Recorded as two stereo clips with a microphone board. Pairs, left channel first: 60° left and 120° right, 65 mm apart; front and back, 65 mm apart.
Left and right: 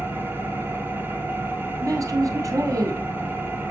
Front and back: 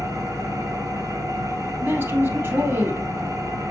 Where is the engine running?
175° right, 1.9 m.